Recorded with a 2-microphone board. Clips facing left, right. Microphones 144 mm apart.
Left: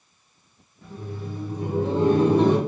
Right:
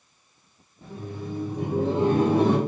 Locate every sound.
0.8 s laughter: 30° right (ahead or behind), 0.8 m; by 2.6 s 5° right (ahead or behind), 1.2 m